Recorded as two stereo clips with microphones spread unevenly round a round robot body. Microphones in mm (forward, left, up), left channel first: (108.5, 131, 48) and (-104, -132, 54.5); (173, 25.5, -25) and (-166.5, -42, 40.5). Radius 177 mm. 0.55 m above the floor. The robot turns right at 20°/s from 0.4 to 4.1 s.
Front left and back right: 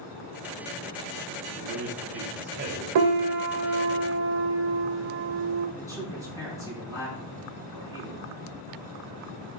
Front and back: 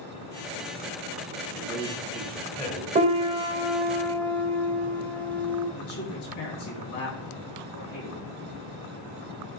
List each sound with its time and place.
1.6 s a man speaking: 90° right, 2.5 m; by 2.9 s 65° right, 2.5 m
3.0 s a piano: 100° right, 0.7 m; by 5.7 s 75° right, 0.7 m
5.8 s a man speaking: 30° right, 4.5 m